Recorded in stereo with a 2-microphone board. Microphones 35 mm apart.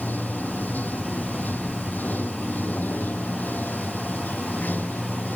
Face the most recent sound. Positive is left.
turn(degrees=55)  # may be behind; listen again after turning